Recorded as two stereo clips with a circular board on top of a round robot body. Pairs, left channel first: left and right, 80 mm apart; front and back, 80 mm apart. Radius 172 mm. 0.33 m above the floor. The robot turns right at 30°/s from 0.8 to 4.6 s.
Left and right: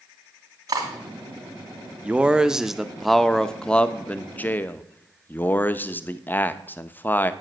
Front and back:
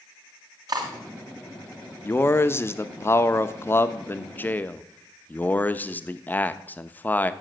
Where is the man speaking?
30° right, 1.0 m; by 7.3 s 45° left, 1.0 m.